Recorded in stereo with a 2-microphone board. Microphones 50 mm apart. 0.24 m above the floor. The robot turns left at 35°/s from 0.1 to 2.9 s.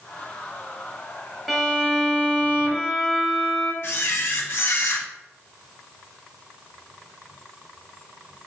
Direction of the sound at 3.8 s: 55° left (ahead or behind).